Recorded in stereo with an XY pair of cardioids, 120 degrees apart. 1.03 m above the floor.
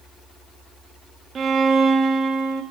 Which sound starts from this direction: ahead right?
A violin, at 1.4 s.